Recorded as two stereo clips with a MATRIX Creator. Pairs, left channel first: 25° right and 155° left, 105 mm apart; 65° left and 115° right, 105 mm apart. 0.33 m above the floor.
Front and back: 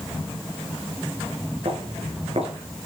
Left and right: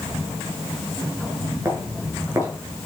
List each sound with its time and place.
1.6 s footsteps: straight behind, 7 m